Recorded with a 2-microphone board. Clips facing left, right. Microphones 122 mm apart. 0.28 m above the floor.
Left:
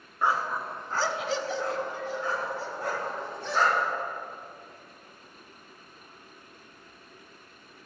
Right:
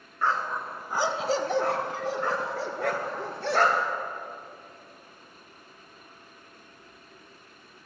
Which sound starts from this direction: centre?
A dog barking, at 0.2 s.